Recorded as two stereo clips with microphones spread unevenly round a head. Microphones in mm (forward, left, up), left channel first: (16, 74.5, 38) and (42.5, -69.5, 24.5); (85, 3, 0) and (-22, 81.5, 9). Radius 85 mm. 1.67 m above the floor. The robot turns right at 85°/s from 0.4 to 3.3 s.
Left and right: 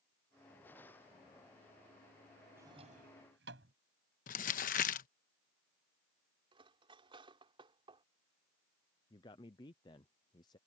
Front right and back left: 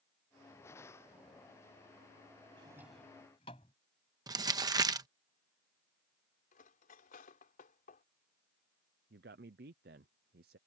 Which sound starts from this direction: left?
Crumpling, at 4.3 s.